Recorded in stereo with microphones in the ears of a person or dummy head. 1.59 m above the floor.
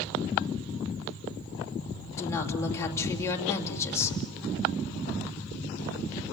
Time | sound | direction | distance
2.2 | a woman speaking | 15° left (ahead or behind) | 2.5 m